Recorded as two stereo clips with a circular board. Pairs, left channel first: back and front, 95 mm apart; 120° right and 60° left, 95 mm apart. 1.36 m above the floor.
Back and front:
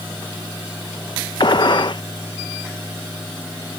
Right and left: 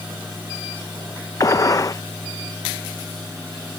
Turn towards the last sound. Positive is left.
turn(degrees=-165)